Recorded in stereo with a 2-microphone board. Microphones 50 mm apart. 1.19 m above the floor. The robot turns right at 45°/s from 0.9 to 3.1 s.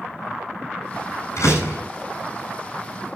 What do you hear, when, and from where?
1.4 s a door slam: 80° left, 8.5 m; by 1.8 s 60° left (ahead or behind), 8.5 m